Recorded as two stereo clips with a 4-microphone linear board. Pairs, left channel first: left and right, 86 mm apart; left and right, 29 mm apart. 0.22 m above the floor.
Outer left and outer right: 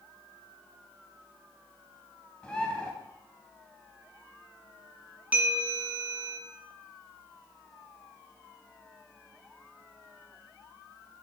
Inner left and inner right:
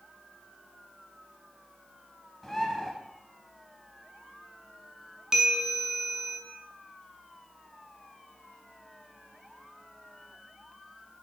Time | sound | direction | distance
2.4 | a bird | 15° left (ahead or behind) | 0.7 m
5.3 | a bell | 20° right (ahead or behind) | 0.7 m